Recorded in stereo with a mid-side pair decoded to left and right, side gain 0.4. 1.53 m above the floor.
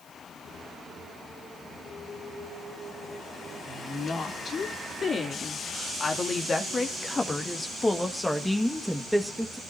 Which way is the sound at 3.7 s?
55° left.